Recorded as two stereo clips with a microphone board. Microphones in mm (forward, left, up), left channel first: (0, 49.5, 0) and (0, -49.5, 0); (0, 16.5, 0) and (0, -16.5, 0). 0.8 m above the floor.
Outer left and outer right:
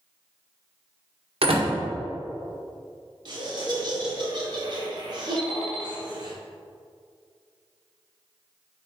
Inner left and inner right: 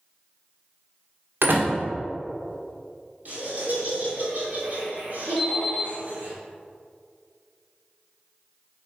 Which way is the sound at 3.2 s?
50° right (ahead or behind).